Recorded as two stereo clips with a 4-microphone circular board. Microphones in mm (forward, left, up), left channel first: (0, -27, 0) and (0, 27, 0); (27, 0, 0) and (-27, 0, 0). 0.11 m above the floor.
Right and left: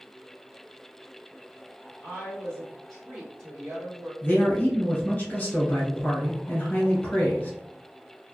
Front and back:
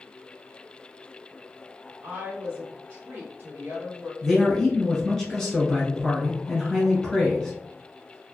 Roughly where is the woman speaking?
Behind right.